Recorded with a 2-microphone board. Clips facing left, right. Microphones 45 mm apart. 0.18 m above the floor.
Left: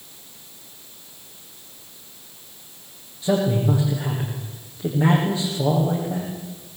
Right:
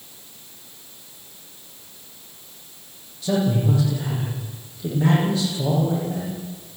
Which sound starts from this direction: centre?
A man speaking, at 3.2 s.